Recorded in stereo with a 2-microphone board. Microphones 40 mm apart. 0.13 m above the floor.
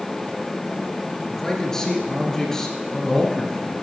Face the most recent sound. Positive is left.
turn(degrees=15)  # may be behind; listen again after turning